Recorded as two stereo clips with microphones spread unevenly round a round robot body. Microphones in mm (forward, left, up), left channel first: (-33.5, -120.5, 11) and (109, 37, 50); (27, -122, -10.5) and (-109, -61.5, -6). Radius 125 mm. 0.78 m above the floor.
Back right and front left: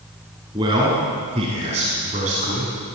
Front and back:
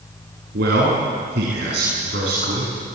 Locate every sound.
0.5 s a man speaking: 120° left, 7 m; by 2.7 s 105° left, 7 m